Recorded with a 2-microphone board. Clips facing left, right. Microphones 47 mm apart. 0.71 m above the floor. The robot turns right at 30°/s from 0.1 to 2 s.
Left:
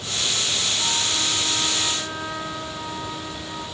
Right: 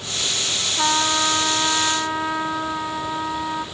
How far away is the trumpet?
About 1.5 m.